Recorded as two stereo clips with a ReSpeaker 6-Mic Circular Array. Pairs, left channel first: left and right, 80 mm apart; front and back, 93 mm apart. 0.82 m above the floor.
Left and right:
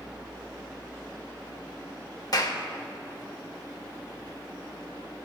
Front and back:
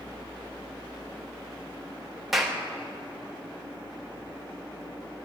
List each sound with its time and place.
2.3 s a clap: 95° left, 0.8 m